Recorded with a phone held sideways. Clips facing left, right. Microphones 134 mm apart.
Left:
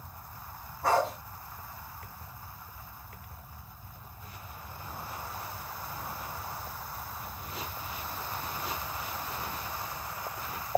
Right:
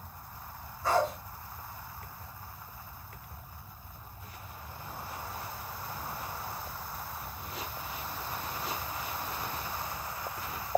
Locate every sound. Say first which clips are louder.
0.8 s a dog barking: left 1 dB; 75° left (ahead or behind), 4.5 m